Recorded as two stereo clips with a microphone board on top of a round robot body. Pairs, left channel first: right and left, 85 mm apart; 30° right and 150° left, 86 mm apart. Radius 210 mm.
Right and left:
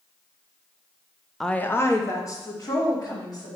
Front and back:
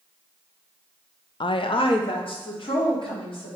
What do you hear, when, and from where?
1.4 s a woman speaking: straight ahead, 0.5 m; by 3.6 s 45° right, 3.5 m